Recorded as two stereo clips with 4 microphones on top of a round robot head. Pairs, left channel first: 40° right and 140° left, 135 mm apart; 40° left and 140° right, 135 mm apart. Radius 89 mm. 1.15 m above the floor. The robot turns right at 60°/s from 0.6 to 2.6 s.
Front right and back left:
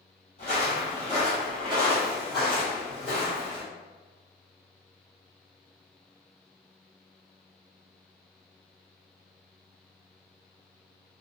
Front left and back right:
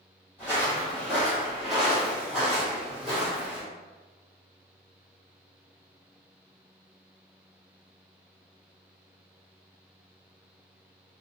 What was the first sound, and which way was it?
Footsteps, 30° right.